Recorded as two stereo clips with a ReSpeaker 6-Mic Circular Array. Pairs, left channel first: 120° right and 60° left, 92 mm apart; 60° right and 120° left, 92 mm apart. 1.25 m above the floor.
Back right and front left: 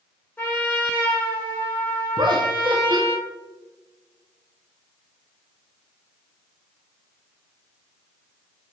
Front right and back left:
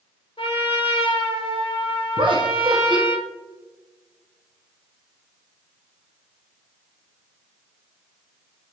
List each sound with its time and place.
0.4 s a trumpet: 50° right, 1.0 m
2.2 s laughter: 95° left, 0.6 m